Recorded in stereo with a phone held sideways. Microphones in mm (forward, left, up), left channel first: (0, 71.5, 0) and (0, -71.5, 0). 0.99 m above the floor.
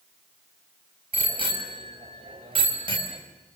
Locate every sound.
1.1 s a bicycle bell: 35° right (ahead or behind), 5 m